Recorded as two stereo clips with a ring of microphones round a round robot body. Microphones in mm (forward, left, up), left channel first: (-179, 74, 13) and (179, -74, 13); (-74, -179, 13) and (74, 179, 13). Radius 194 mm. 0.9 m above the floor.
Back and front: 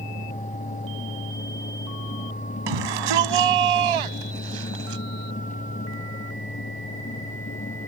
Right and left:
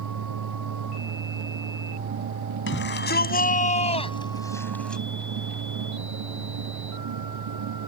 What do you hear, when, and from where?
2.7 s a shout: 50° right; by 5.0 s 25° right